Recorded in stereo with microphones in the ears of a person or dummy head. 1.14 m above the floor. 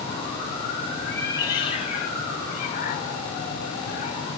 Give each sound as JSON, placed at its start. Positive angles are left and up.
{"t": 1.1, "sound": "a cat meowing", "side_deg": 10, "distance_m": 1.4}